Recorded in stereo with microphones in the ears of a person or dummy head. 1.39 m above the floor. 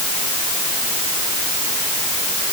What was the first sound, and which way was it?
Only background noise.